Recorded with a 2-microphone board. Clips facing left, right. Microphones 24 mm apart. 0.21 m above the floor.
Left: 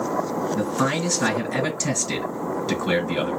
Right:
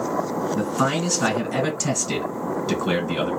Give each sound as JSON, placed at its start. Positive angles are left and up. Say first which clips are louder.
{"t": 0.6, "sound": "a man speaking", "louder": "right 1 dB", "side_deg": 0, "distance_m": 1.9}